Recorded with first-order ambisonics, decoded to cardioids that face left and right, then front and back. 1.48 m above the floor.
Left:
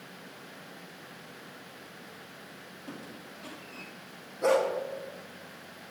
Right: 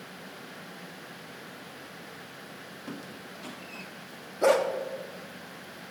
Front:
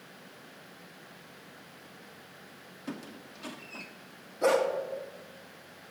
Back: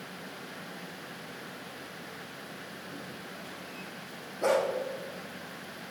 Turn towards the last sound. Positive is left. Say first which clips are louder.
# right 2 dB, front 1 dB
turn(degrees=-75)